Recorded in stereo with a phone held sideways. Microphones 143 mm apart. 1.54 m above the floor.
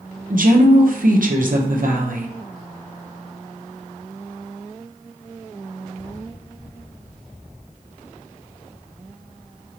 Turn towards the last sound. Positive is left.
turn(degrees=-70)  # may be behind; listen again after turning